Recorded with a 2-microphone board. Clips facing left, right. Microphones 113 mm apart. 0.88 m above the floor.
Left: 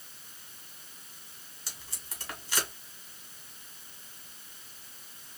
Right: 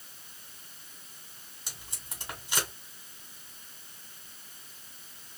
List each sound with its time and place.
1.7 s tape being pulled: 20° right (ahead or behind), 2.5 m